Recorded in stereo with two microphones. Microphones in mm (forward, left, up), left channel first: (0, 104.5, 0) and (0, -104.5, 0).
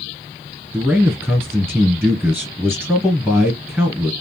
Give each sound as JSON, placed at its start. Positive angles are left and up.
{"t": 0.7, "sound": "a man speaking", "side_deg": -10, "distance_m": 1.7}